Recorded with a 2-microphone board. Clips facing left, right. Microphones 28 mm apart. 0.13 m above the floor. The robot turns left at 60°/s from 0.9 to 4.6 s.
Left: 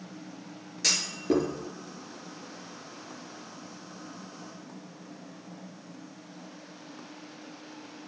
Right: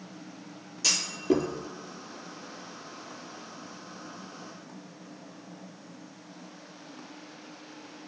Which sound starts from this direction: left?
A clunk, at 0.8 s.